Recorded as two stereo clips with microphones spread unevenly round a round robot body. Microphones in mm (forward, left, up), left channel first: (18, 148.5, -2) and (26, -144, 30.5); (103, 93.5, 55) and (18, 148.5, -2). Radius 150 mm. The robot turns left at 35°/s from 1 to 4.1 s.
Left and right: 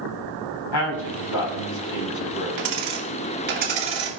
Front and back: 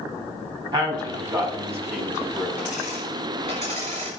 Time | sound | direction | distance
0.7 | a man speaking | 120° left | 4 m
2.6 | a dropped coin | 115° right | 1.5 m